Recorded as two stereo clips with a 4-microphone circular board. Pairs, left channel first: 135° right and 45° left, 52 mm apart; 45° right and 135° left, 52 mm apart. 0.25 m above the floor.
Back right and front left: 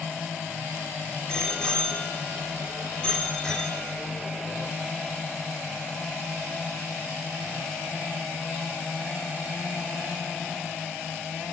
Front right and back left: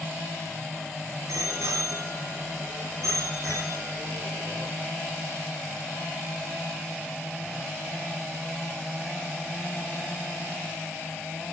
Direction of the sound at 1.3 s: 150° left.